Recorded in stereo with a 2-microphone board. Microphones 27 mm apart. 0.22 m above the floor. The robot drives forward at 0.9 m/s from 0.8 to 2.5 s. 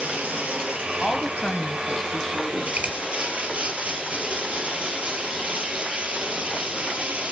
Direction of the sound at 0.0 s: 65° right (ahead or behind).